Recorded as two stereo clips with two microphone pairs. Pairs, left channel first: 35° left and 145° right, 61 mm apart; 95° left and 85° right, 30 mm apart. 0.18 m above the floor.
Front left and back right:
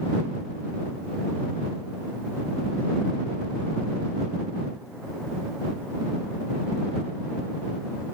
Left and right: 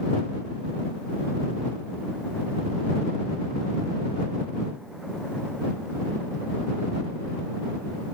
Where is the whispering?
No whispering in this recording.